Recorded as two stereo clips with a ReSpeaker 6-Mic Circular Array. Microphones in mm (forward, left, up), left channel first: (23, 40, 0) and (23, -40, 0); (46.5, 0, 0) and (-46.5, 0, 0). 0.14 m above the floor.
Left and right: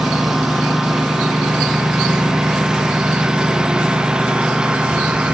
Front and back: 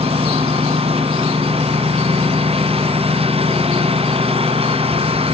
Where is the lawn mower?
175° right; by 5.3 s 170° right.